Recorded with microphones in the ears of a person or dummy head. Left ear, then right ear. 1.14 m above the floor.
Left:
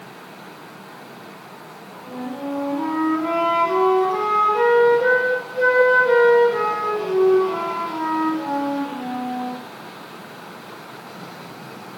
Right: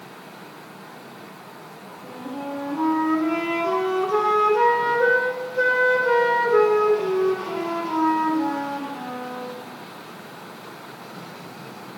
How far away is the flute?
About 1.0 m.